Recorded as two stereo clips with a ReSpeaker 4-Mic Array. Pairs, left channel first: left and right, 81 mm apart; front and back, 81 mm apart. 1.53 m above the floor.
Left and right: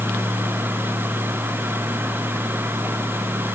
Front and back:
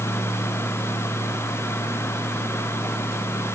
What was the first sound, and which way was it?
Only background noise.